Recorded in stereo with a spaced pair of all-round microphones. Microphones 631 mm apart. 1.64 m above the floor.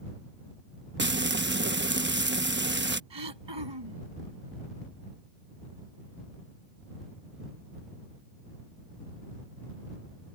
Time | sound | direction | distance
1.0 | frying | 20° right (ahead or behind) | ?
3.1 | throat clearing | 45° right (ahead or behind) | ?